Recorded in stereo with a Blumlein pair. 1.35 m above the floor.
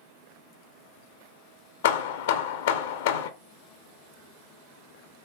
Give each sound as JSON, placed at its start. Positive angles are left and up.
{"t": 1.8, "sound": "hammering", "azimuth_deg": 55, "distance_m": 0.5}